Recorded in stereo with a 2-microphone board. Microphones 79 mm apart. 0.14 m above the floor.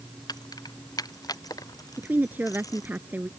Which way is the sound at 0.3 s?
55° left (ahead or behind).